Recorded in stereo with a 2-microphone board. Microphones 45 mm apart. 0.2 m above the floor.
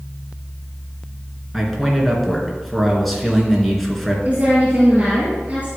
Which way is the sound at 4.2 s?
35° right (ahead or behind).